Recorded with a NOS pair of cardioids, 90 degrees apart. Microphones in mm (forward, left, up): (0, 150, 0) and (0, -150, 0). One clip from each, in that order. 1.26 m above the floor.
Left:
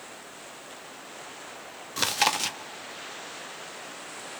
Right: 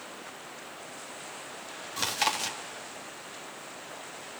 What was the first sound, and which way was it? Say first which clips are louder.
Chewing: left 4 dB; 25° left.